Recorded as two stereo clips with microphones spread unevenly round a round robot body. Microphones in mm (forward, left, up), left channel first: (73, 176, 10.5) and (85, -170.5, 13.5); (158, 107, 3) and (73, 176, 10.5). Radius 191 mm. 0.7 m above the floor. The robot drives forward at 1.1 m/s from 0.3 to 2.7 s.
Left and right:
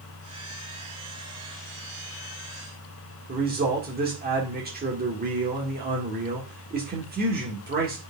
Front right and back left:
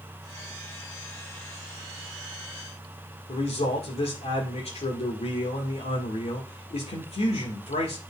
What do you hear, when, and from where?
3.3 s a man speaking: 25° right, 1.8 m